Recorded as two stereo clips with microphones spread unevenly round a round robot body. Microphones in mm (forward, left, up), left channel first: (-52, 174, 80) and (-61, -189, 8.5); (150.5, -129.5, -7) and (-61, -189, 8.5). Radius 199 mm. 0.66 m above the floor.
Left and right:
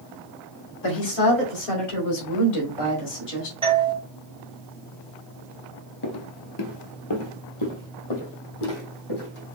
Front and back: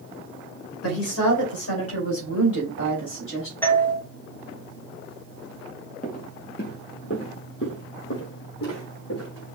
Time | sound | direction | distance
0.8 | a woman speaking | 25° left | 2.5 m
3.6 | a doorbell | 50° right | 1.4 m
6.0 | footsteps | 75° left | 0.8 m